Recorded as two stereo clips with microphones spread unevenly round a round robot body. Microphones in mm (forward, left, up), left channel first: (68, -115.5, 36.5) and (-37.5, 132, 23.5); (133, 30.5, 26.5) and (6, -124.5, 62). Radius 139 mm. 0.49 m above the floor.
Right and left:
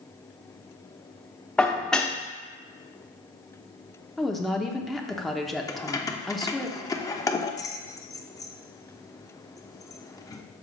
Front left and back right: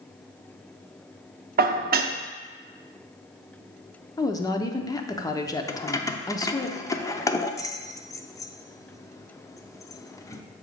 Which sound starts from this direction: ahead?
Keys jangling, at 5.7 s.